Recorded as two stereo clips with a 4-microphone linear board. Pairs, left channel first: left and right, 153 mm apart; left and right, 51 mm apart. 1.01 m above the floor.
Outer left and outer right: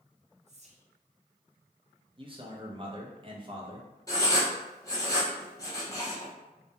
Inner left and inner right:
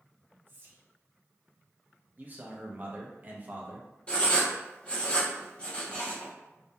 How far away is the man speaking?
About 0.6 m.